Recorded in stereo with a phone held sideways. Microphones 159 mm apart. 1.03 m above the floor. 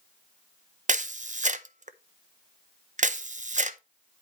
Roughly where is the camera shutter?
Right.